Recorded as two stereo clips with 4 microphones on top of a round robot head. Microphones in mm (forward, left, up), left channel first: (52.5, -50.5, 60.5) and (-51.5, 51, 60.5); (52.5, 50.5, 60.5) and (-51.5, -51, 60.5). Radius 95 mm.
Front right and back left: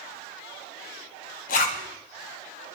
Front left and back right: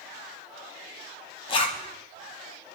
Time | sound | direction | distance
1.5 | a zipper | 15° right | 1.8 m